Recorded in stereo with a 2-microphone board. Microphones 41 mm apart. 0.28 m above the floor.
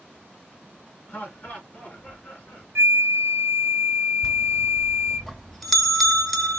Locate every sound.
1.1 s laughter: 40° left (ahead or behind), 2.5 m
2.8 s a flute: 75° right (ahead or behind), 1.1 m
4.2 s a bell: 5° left (ahead or behind), 1.0 m